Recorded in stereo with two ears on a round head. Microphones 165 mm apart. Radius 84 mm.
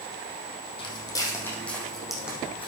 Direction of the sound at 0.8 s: 25° left (ahead or behind).